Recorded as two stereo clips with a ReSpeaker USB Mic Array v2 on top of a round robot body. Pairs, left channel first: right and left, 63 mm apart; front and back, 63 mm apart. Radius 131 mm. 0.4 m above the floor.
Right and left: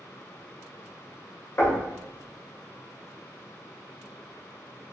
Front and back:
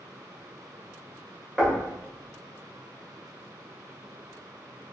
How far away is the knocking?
About 1.1 m.